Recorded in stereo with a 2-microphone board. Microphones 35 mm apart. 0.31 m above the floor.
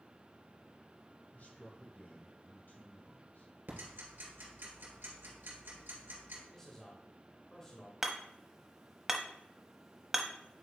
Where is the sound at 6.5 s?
15° left (ahead or behind), 0.9 m.